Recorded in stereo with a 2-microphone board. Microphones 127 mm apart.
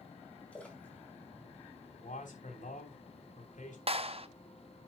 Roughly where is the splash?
Centre.